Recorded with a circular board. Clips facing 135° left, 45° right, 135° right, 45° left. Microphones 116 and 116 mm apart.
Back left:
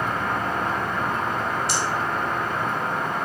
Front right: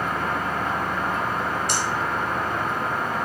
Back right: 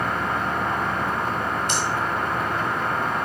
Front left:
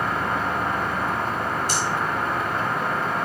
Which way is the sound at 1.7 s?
5° right.